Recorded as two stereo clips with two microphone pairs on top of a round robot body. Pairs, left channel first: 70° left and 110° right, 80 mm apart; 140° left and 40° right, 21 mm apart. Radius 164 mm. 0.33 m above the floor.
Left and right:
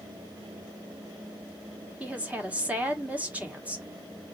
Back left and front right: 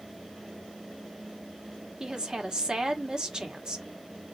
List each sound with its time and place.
2.0 s a woman speaking: 40° right, 1.3 m